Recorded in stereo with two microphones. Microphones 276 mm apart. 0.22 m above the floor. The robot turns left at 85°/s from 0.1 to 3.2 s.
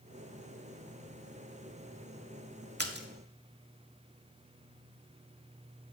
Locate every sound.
2.8 s a splash: 40° right (ahead or behind), 0.6 m